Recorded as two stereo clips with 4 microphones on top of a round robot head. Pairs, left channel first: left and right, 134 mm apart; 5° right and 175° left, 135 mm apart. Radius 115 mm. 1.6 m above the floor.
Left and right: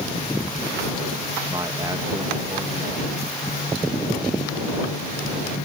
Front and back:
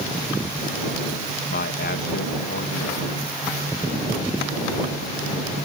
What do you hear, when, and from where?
1.5 s a man speaking: 20° right